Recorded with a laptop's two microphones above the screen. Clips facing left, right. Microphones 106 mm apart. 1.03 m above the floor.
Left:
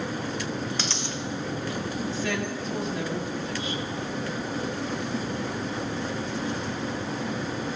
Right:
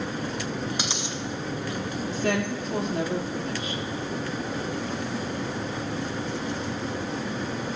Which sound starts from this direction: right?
A woman speaking, at 2.1 s.